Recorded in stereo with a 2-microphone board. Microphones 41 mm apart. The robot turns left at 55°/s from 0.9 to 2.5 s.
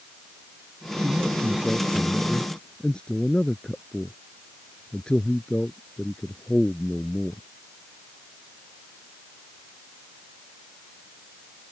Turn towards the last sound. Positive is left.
turn(degrees=25)  # may be behind; listen again after turning